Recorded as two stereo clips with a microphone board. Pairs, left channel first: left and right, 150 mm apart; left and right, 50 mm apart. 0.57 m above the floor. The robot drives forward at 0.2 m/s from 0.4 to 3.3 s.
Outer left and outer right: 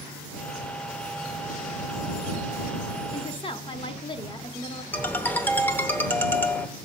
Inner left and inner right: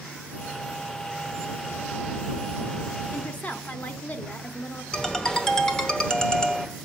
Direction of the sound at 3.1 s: 35° left (ahead or behind).